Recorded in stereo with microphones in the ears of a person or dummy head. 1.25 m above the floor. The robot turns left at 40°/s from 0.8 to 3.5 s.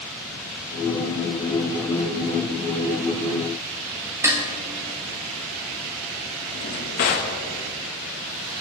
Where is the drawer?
45° left (ahead or behind), 0.7 m.